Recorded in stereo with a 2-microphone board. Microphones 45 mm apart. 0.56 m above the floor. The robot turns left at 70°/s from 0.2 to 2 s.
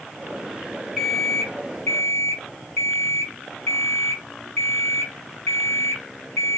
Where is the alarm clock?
Straight behind, 2.5 m; by 6.6 s 105° left, 2.5 m.